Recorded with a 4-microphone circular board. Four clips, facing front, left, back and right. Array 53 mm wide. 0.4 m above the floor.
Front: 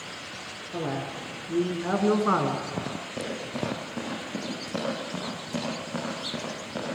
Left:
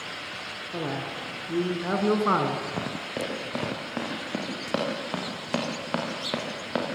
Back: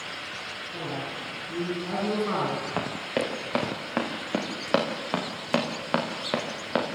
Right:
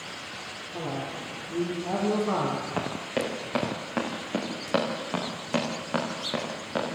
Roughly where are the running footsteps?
Behind.